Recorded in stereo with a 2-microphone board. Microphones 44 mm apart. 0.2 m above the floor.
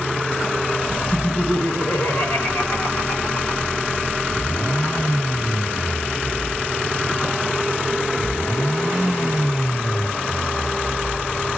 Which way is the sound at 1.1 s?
65° left (ahead or behind).